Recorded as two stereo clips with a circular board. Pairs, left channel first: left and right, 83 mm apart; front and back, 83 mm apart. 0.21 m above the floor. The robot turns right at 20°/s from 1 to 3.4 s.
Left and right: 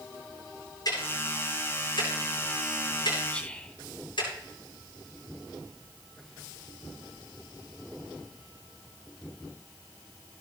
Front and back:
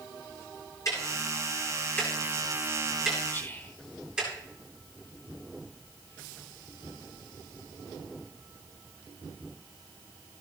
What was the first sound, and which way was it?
Ticking, 50° left.